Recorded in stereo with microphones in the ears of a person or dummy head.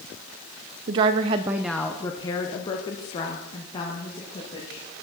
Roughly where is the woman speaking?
Right.